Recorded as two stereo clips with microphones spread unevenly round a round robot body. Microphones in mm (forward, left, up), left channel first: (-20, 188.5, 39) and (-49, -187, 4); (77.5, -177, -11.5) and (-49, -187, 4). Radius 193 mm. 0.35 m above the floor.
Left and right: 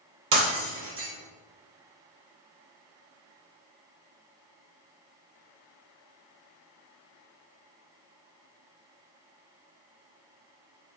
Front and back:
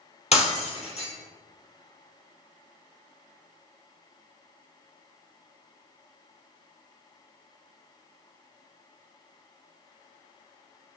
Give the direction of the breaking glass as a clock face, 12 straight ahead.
1 o'clock.